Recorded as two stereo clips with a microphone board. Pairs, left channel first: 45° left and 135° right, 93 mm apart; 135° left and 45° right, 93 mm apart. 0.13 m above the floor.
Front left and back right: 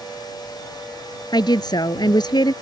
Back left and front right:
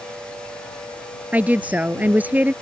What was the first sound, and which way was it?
A woman speaking, 25° left.